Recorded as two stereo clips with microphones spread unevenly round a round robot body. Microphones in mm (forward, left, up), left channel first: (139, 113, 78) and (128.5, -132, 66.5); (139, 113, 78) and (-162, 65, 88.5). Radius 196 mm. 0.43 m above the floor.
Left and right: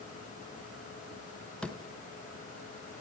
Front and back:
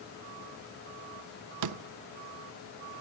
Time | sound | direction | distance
1.6 | a door slam | 175° left | 0.8 m